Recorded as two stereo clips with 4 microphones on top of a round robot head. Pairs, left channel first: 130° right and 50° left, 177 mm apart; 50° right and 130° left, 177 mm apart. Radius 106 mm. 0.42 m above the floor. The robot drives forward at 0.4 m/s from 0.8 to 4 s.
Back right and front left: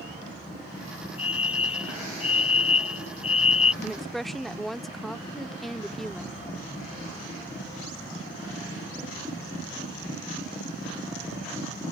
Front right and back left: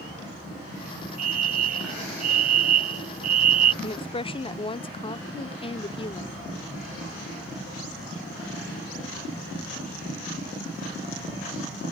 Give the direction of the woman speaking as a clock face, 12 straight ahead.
1 o'clock.